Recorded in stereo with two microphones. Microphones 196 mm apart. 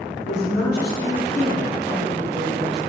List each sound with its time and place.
0.3 s a woman speaking: 50° left (ahead or behind), 2.5 m; by 2.8 s 70° left (ahead or behind), 3 m